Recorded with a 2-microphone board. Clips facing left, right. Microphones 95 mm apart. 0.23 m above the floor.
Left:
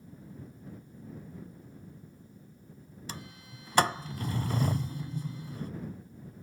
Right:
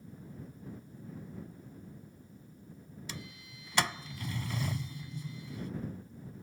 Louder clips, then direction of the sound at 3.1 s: Left 4 dB; 40° left (ahead or behind).